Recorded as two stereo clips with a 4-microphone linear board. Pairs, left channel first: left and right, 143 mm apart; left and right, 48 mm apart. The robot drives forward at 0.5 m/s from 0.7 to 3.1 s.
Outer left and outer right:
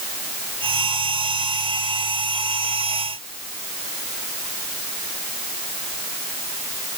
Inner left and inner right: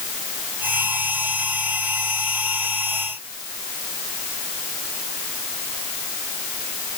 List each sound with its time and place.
Only background noise.